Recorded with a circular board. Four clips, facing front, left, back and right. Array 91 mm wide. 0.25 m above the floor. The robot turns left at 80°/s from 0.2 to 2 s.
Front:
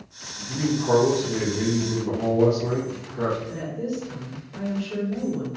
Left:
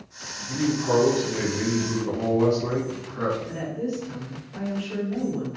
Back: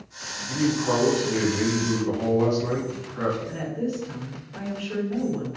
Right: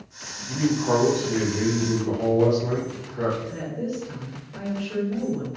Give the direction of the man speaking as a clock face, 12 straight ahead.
4 o'clock.